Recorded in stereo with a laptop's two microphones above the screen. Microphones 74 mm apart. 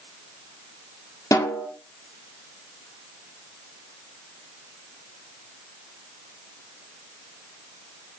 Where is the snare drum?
45° left (ahead or behind), 1.2 m.